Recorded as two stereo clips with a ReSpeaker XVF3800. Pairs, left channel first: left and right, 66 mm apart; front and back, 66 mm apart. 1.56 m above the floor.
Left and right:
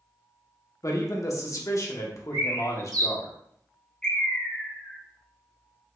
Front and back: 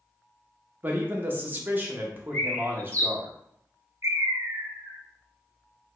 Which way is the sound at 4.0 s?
165° left.